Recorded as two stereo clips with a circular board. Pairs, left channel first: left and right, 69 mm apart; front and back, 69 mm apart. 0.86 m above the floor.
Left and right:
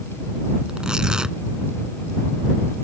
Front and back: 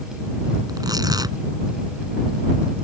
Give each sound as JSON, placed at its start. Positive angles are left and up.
{"t": 0.7, "sound": "tearing paper", "azimuth_deg": -170}